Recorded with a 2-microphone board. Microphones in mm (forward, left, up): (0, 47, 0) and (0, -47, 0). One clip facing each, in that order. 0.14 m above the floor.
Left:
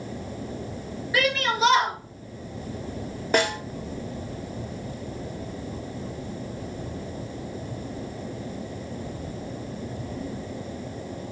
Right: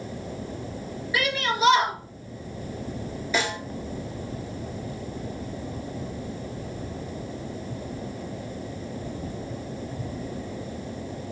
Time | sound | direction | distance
1.1 | a shout | 30° left (ahead or behind) | 2.5 m
3.3 | a snare drum | 60° left (ahead or behind) | 0.9 m